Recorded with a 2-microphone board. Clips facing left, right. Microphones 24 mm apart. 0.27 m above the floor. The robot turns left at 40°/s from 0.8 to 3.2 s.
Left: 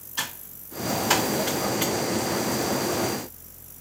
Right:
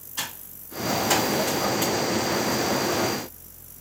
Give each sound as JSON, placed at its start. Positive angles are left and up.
{"t": 0.2, "sound": "typing on a keyboard", "side_deg": 15, "distance_m": 1.6}